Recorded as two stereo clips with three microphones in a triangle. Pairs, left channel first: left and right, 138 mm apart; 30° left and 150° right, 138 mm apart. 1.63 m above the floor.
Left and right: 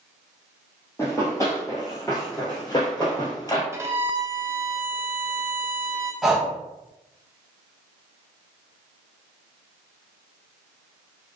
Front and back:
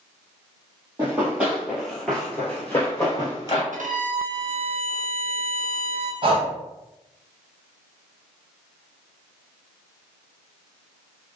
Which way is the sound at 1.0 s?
145° left.